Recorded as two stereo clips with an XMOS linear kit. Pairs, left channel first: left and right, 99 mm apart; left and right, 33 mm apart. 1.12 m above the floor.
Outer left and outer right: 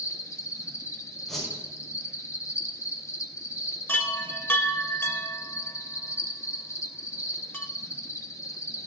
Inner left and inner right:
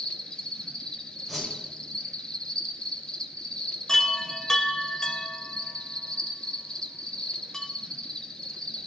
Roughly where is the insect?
Left.